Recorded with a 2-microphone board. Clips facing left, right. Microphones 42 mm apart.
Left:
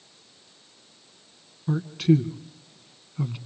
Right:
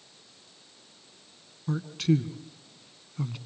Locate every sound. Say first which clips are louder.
1.7 s a man speaking: left 5 dB; 5° left (ahead or behind), 1.3 m